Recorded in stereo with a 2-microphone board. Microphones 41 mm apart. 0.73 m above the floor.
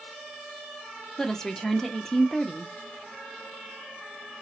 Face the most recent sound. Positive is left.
turn(degrees=10)  # may be behind; listen again after turning